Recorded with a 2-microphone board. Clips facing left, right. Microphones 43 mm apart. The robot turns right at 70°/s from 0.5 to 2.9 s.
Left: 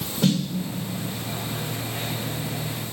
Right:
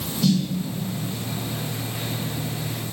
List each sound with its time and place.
0.2 s a snare drum: 40° left (ahead or behind), 4.5 m